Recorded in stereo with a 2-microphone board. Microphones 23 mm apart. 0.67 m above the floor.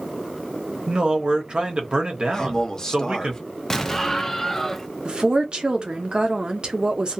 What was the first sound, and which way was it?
A man speaking, 45° right (ahead or behind).